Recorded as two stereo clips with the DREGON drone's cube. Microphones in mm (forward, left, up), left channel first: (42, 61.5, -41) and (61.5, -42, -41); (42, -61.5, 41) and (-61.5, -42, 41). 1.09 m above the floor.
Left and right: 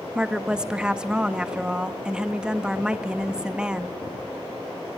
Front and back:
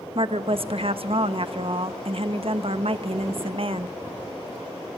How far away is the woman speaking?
About 1.1 m.